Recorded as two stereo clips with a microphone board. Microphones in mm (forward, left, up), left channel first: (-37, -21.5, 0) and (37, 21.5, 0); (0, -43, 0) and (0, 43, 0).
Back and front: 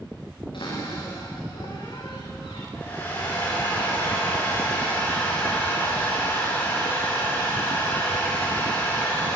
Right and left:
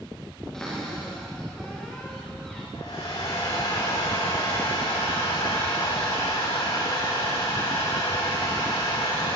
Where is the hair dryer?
90° right, 9 m.